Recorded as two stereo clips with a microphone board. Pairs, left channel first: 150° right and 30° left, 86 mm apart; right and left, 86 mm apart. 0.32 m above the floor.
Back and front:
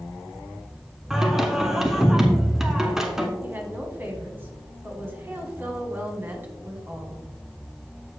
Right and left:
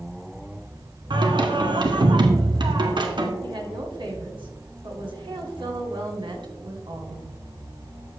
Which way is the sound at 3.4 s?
95° left.